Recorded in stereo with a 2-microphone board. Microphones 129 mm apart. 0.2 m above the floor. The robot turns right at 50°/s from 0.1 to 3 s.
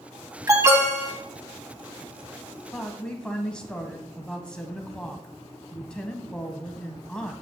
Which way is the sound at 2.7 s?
Centre (ahead or behind).